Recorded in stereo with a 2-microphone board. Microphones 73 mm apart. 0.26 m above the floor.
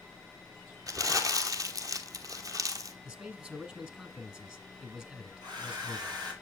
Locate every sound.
0.9 s crumpling: 55° right (ahead or behind), 1.2 m
3.0 s a man speaking: 20° right (ahead or behind), 1.6 m
5.4 s a hair dryer: 70° right (ahead or behind), 3.5 m